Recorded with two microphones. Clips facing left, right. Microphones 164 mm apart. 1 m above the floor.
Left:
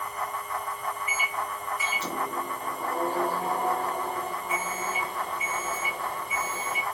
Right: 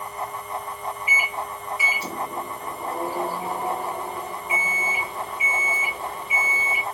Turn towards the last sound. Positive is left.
turn(degrees=-10)  # may be behind; listen again after turning